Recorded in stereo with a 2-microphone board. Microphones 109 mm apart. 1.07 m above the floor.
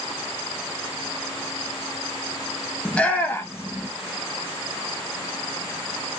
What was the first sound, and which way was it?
A shout, 5° left (ahead or behind).